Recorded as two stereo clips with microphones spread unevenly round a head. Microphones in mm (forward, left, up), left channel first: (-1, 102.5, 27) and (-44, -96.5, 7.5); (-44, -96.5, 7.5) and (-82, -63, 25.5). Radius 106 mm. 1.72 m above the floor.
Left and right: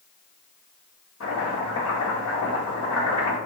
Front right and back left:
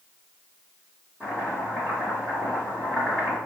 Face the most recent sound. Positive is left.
turn(degrees=65)